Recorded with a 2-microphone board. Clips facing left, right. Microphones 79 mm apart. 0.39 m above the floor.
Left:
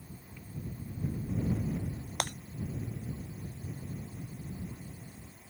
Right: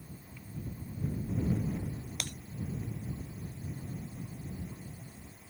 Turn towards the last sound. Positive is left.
turn(degrees=60)  # may be behind; listen again after turning